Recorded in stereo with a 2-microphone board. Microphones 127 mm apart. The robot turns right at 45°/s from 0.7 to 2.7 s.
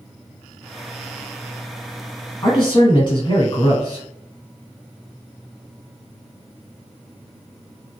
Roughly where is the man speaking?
Left.